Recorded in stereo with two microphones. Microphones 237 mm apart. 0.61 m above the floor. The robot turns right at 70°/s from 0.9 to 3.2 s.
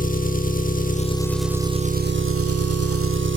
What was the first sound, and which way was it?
An engine running, 145° left.